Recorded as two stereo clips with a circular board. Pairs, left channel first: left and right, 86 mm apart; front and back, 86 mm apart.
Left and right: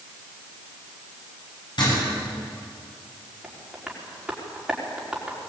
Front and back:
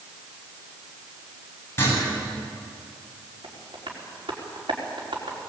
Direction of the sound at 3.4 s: 175° right.